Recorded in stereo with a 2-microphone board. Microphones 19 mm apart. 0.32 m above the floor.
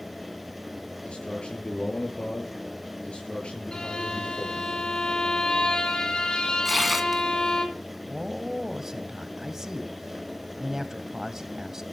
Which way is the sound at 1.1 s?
70° left (ahead or behind).